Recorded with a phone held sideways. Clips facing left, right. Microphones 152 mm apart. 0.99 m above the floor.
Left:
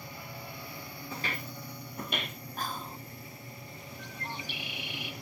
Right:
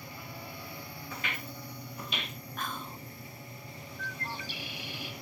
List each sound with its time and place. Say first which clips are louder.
1.1 s footsteps: left 2 dB; 30° left (ahead or behind), 1.1 m; by 2.4 s 55° left (ahead or behind), 2.0 m
2.6 s whispering: left 1 dB; 35° left (ahead or behind), 0.7 m
4.0 s a bird: right 1 dB; 20° left (ahead or behind), 1.4 m